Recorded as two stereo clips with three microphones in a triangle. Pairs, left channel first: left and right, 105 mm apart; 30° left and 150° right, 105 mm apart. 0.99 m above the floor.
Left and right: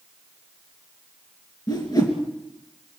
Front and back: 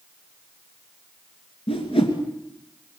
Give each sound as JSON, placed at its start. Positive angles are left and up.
{"t": 1.7, "sound": "a whoosh", "azimuth_deg": 45, "distance_m": 3.0}